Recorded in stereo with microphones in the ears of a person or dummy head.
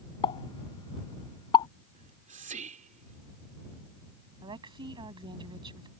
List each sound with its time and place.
0.2 s a pop: 30° left (ahead or behind)
1.9 s whispering: 40° right (ahead or behind)
4.4 s a woman speaking: 25° right (ahead or behind)